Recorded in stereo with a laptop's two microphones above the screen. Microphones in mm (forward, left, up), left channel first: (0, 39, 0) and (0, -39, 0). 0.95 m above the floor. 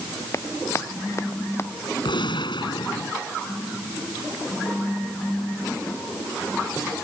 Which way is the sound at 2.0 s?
85° left.